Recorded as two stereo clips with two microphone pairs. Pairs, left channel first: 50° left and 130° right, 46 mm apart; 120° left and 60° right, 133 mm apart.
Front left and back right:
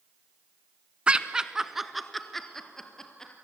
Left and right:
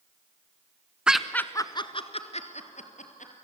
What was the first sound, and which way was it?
Laughter, 135° right.